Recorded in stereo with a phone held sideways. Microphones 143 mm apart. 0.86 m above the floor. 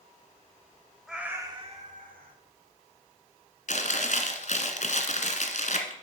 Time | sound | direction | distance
1.1 | a cat meowing | 5° right (ahead or behind) | 1.5 m
3.7 | chewing | 60° left (ahead or behind) | 1.5 m